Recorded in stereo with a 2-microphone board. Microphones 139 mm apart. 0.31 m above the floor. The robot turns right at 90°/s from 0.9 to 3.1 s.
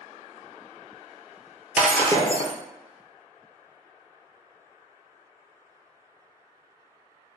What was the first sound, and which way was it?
Breaking glass, 10° right.